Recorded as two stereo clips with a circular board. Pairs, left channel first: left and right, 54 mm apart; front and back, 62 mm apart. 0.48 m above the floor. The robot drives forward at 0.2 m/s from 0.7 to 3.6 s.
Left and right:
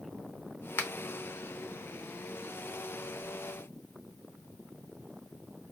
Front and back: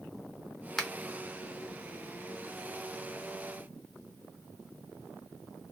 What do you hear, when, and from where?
0.8 s a finger snap: 85° left, 0.7 m